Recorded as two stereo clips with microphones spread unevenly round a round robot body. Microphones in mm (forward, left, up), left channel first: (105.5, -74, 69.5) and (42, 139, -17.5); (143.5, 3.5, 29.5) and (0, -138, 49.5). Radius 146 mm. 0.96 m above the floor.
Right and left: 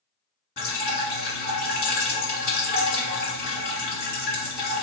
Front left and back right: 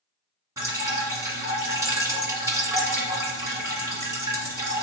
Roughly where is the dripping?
Ahead right.